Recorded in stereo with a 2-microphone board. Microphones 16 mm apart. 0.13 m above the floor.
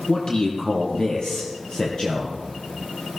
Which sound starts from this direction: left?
A man speaking, at 0.1 s.